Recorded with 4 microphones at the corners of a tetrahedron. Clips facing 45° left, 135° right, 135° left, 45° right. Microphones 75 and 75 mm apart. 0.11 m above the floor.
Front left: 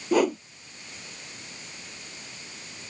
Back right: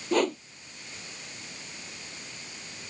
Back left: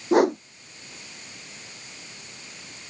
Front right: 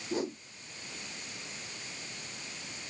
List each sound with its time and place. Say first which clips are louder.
0.1 s a whoosh: front left 3 dB, back left 16 dB; 130° left